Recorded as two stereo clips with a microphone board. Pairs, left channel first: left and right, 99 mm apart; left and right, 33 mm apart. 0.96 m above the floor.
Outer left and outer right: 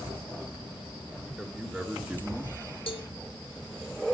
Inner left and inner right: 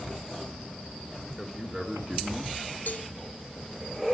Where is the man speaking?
10° right (ahead or behind), 2.5 m.